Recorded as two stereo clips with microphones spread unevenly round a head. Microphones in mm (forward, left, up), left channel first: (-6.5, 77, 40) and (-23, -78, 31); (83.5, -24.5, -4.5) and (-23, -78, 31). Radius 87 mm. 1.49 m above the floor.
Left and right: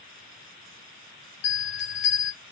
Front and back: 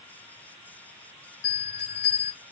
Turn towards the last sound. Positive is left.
turn(degrees=70)